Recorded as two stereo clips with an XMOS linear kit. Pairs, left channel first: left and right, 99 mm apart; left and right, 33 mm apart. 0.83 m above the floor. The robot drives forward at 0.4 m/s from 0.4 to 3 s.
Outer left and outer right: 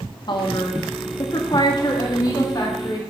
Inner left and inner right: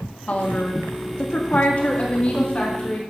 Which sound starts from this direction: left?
A woman speaking, at 0.3 s.